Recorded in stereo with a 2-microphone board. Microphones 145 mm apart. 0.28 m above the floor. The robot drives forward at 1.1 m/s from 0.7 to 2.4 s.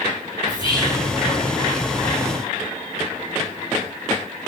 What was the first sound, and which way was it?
Whispering, 35° left (ahead or behind).